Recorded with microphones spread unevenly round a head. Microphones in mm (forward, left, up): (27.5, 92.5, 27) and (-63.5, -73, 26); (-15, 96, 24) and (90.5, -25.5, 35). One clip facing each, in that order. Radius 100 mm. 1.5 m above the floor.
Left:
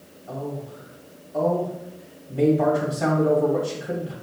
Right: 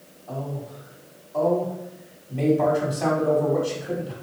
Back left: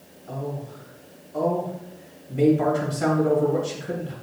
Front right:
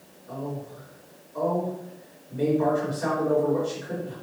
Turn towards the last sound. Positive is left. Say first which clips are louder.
# left 1 dB, back left 2 dB
turn(degrees=140)